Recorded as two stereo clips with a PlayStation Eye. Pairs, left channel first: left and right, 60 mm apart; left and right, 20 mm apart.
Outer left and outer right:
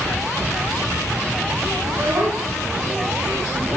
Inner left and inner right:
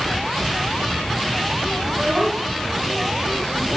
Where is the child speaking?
65° right (ahead or behind), 9.5 m; by 3.8 s 60° right (ahead or behind), 11 m.